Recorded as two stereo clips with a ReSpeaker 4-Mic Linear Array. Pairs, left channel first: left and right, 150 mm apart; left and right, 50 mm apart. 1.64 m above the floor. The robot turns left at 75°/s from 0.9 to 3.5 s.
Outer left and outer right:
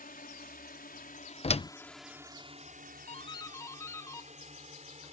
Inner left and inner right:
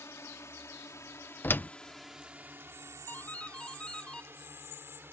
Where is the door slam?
45° left (ahead or behind); by 1.7 s 40° left (ahead or behind).